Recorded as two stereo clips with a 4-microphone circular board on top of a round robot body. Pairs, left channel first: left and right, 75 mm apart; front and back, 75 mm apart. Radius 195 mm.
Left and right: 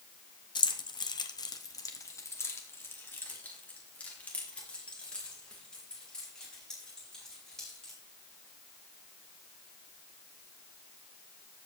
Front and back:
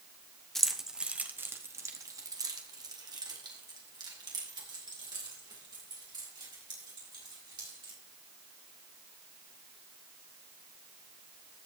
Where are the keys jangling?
85° left, 1.1 m; by 8.0 s 175° left, 5 m.